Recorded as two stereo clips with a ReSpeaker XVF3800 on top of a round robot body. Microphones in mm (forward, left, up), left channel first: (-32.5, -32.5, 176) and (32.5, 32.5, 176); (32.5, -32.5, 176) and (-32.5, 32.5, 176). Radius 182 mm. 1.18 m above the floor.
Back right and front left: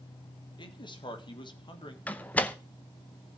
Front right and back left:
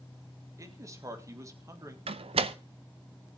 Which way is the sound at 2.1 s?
150° left.